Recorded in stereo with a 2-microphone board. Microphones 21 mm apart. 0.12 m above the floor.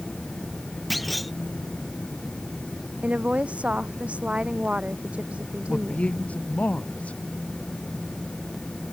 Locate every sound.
0.9 s a clunk: centre (ahead or behind)
3.0 s a woman speaking: 70° right (ahead or behind)
5.7 s a man speaking: 80° left